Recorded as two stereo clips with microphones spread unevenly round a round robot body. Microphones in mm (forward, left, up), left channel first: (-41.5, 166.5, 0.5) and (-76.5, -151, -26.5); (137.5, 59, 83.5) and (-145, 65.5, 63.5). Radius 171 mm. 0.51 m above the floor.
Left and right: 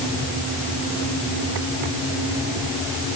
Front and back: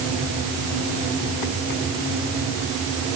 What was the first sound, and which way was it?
Only background noise.